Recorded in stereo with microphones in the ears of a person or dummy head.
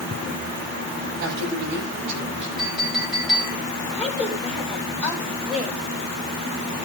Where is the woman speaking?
5° right (ahead or behind), 8.5 m.